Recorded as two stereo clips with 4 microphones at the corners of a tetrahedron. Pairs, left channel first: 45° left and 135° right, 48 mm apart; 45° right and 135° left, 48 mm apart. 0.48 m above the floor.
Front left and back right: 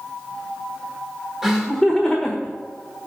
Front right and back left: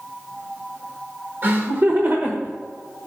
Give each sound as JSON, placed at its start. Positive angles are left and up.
{"t": 1.4, "sound": "laughter", "azimuth_deg": 145, "distance_m": 1.1}